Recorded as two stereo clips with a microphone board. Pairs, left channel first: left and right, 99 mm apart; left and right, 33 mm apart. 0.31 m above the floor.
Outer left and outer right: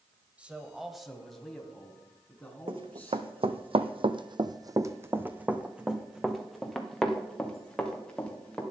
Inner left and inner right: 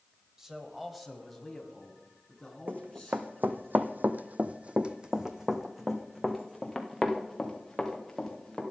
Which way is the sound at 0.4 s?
15° right (ahead or behind).